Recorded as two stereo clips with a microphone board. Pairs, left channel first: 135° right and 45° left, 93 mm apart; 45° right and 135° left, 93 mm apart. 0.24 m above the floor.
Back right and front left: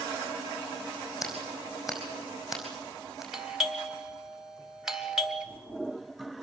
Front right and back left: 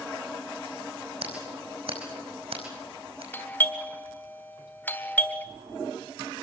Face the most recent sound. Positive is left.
turn(degrees=-30)